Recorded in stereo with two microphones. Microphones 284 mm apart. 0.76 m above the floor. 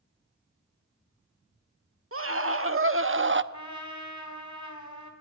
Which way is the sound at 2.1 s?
50° right (ahead or behind).